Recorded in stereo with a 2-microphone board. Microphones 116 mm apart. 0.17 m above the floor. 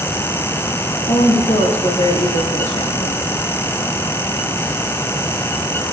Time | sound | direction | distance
1.1 | a woman speaking | 75° left (ahead or behind) | 6 m